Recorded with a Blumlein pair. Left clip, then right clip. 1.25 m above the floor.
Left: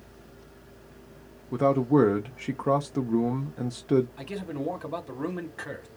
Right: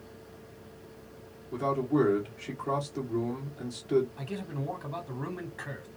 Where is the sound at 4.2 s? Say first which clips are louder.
Left 4 dB; 15° left, 1.1 m.